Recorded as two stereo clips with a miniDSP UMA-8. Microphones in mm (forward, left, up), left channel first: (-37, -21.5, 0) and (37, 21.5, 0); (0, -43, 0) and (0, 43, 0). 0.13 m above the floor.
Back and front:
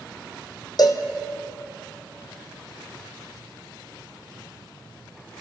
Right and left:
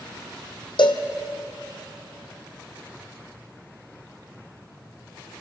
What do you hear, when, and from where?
0.8 s a cowbell: 110° right, 1.4 m